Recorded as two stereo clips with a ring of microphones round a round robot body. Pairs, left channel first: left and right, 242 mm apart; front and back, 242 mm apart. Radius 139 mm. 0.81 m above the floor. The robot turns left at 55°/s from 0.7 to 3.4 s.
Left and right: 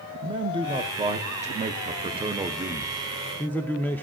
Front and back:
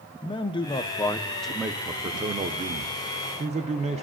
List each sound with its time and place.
0.2 s a man speaking: 45° right, 0.5 m; by 4.0 s 165° left, 0.5 m